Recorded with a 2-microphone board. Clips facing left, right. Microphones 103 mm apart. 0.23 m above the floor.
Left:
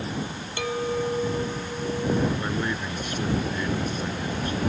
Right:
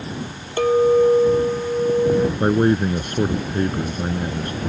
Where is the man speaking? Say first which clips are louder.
Right 11 dB; 50° right (ahead or behind).